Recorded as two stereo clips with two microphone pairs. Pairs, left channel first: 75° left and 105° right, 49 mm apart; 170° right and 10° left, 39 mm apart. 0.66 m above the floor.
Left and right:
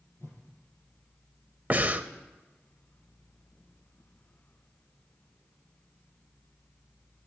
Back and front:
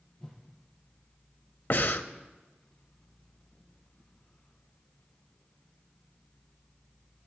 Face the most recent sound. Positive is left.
turn(degrees=-155)